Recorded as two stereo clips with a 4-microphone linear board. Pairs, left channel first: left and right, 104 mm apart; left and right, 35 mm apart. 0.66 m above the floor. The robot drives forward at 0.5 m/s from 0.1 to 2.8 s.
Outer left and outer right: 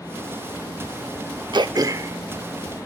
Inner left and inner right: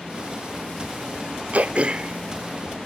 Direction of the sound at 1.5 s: 45° right (ahead or behind).